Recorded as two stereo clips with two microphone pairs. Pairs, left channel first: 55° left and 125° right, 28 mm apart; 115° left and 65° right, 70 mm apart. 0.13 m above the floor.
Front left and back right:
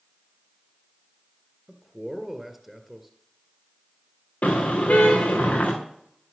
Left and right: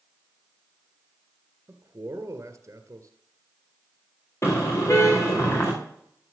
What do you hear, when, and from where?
1.7 s a man speaking: 45° right, 1.8 m
4.4 s a car horn: 70° left, 4.5 m